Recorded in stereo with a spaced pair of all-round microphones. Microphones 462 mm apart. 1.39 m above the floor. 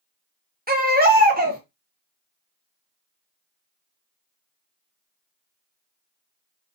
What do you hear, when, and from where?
0.7 s a baby crying: 20° right (ahead or behind), 0.6 m